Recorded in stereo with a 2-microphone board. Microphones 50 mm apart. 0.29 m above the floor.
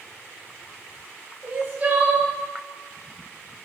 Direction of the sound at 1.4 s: 35° right (ahead or behind).